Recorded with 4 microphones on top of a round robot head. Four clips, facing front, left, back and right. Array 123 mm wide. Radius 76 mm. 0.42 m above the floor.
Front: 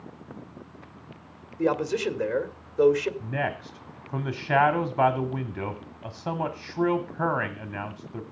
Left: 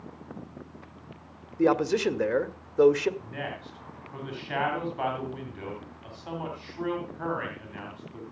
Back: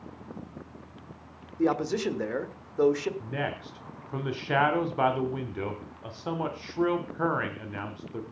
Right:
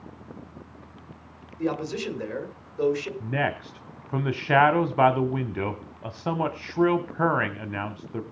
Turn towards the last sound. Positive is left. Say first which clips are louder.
# right 9 dB, front 3 dB
turn(degrees=-75)